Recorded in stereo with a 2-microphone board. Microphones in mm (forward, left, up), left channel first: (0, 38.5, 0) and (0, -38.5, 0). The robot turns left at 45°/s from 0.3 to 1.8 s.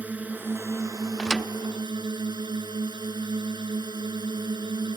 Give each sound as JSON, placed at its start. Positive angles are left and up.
{"t": 0.0, "sound": "a drone", "azimuth_deg": -20}
{"t": 1.2, "sound": "a thud", "side_deg": 10}